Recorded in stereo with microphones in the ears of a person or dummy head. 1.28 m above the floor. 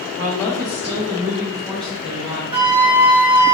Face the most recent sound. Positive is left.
turn(degrees=-15)  # may be behind; listen again after turning